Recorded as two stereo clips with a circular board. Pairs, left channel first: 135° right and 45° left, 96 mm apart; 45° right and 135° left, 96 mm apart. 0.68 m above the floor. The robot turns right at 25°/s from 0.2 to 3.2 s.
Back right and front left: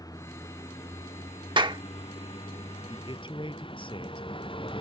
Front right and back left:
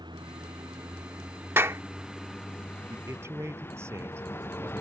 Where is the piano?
No piano in this recording.